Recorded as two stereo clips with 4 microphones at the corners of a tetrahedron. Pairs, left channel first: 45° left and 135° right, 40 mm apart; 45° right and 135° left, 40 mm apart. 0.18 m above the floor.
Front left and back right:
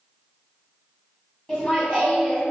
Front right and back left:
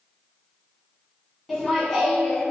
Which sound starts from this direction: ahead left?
Laughter, at 1.5 s.